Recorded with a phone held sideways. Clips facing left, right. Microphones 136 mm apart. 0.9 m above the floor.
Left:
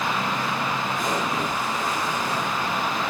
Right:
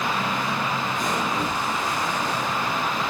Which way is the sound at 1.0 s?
10° left (ahead or behind).